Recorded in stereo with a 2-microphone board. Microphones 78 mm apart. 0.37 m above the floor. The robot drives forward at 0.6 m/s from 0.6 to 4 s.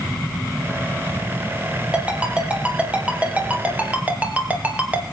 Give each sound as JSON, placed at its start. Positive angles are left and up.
{"t": 1.9, "sound": "a ringtone", "side_deg": -15, "distance_m": 5.0}